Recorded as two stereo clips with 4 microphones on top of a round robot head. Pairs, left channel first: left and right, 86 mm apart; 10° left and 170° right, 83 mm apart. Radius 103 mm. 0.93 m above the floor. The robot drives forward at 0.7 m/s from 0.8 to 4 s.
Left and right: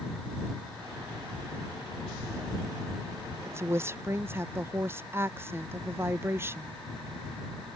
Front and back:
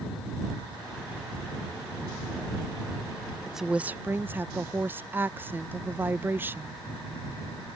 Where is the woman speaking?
80° right; by 6.7 s 125° right.